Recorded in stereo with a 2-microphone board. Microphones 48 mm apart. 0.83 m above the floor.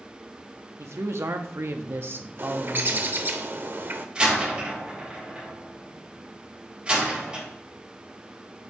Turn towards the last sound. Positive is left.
turn(degrees=-20)  # may be behind; listen again after turning